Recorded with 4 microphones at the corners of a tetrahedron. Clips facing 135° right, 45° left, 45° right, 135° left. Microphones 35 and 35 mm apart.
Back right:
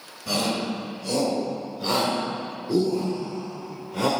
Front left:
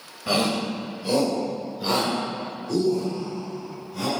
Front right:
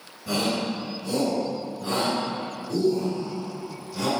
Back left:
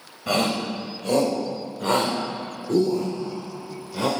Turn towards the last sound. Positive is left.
turn(degrees=-165)